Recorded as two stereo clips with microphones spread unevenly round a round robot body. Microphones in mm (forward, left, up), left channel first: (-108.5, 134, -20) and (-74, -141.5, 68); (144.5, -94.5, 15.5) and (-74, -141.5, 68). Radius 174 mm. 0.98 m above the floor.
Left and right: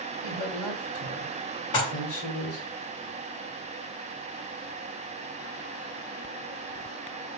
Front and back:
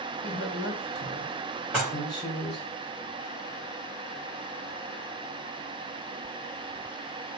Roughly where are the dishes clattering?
Left.